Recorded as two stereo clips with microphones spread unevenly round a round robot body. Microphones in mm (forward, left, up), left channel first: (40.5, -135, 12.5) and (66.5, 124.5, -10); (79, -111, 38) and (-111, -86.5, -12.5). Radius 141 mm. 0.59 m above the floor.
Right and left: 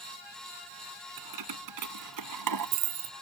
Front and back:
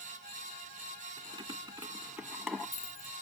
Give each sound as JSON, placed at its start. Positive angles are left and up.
{"t": 1.2, "sound": "keys jangling", "azimuth_deg": 95}